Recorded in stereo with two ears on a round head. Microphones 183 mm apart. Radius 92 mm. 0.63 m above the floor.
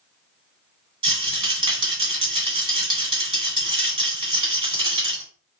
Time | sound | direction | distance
1.0 | a rattle | 25° right (ahead or behind) | 1.9 m